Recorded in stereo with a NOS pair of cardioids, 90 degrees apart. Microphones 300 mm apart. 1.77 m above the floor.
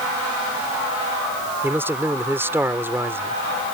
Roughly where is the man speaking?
Ahead.